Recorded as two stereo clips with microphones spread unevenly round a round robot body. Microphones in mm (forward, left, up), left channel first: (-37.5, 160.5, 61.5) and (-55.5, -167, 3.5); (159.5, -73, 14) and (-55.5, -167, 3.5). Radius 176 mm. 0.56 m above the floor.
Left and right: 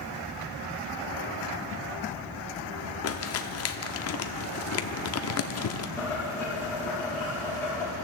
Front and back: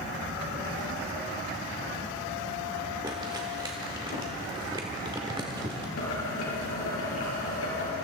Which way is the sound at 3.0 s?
130° left.